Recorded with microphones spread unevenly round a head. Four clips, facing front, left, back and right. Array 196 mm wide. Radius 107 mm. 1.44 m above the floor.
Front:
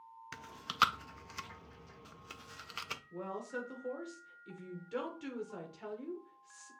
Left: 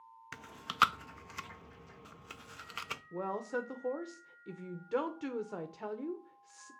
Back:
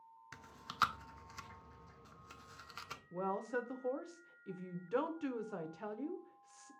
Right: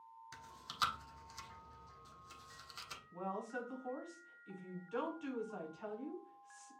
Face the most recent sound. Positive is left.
turn(degrees=115)